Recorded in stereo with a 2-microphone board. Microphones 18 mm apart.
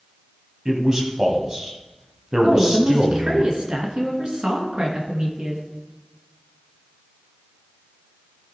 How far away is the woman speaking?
About 2.5 m.